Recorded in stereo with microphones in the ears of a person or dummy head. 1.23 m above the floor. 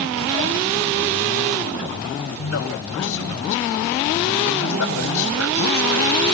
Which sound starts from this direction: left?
A man speaking, at 2.4 s.